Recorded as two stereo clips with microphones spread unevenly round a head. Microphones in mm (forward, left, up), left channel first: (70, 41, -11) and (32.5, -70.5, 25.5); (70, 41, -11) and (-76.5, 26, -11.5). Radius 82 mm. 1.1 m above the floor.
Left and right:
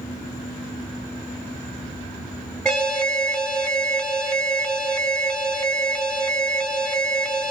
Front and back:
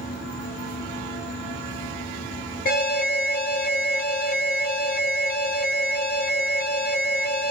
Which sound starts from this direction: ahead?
An alarm, at 2.6 s.